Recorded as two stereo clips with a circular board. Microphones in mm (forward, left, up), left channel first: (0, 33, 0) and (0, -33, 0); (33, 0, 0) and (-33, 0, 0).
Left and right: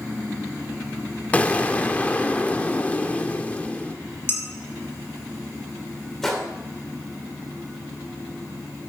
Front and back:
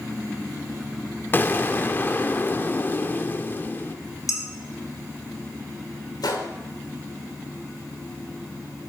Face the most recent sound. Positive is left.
turn(degrees=5)